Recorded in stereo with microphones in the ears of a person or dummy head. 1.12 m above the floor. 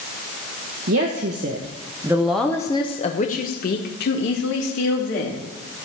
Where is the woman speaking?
55° right (ahead or behind), 1.4 m; by 5.4 s 65° left (ahead or behind), 3 m.